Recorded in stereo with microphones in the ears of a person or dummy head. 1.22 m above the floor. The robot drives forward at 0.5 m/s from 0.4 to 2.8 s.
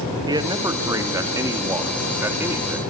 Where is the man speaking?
25° right (ahead or behind), 1.9 m; by 2.8 s 15° right (ahead or behind), 3 m.